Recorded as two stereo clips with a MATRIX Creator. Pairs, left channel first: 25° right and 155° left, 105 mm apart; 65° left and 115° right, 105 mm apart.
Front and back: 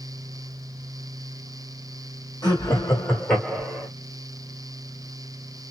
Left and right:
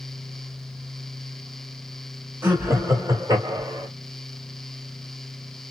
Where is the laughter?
55° right, 1.4 m; by 3.9 s 125° right, 1.1 m.